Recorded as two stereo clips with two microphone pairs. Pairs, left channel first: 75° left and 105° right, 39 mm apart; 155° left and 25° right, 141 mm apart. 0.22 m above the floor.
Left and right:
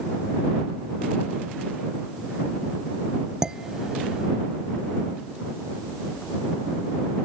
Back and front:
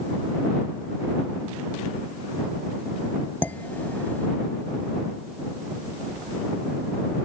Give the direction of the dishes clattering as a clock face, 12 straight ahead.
5 o'clock.